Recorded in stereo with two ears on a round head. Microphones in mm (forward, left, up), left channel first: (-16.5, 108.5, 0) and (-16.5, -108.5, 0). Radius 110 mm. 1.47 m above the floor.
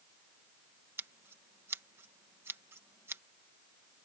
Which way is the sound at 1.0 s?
10° right (ahead or behind).